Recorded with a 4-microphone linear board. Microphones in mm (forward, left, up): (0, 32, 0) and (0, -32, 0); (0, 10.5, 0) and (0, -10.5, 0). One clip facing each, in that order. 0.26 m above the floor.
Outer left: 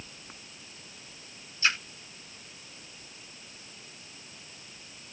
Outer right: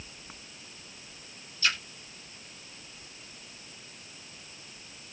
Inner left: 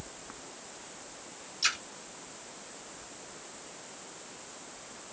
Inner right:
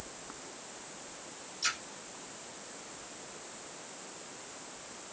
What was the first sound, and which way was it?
A splash, 25° left (ahead or behind).